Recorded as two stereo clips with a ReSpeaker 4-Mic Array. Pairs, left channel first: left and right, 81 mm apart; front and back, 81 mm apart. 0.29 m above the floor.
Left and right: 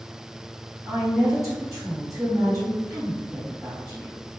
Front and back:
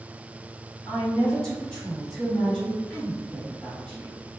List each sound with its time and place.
0.9 s a woman speaking: 75° right, 1.9 m